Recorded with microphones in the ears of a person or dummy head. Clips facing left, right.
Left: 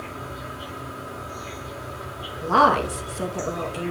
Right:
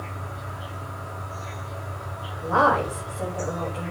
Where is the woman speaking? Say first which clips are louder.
Left 2 dB; 70° left (ahead or behind), 2.5 m.